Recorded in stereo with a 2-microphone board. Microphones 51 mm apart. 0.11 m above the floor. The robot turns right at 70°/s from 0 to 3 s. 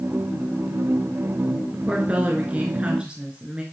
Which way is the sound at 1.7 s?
20° right (ahead or behind).